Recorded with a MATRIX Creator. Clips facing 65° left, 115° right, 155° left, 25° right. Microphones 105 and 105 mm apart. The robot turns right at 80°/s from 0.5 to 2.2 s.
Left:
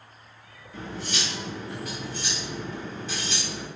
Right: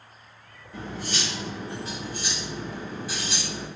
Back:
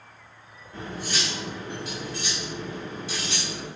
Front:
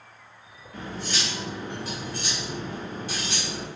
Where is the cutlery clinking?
150° right, 1.1 m; by 3.7 s 35° right, 1.1 m.